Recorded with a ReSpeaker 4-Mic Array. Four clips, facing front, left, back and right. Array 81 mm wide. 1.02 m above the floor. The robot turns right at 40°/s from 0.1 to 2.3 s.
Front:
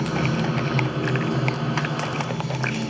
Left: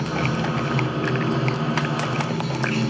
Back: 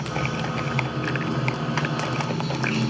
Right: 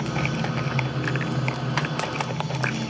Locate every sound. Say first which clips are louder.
0.0 s running water: left 3 dB, front 4 dB; 40° left, 3 m; by 2.9 s 130° left, 3 m